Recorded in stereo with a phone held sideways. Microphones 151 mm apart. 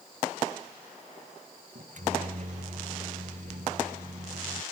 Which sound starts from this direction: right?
A microwave, at 1.8 s.